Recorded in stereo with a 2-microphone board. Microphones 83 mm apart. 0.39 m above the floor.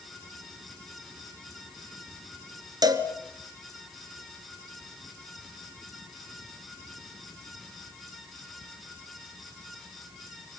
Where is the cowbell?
50° right (ahead or behind), 2 m.